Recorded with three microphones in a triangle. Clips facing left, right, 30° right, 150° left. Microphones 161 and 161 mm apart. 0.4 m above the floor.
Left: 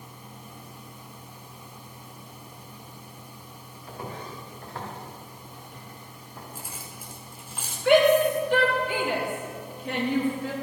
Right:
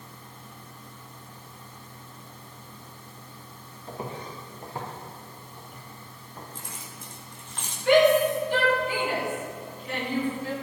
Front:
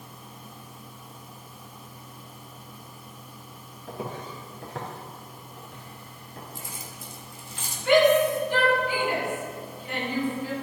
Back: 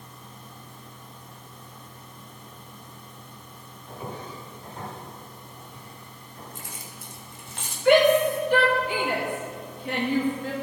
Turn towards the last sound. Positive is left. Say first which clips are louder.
# even, back 1 dB
turn(degrees=120)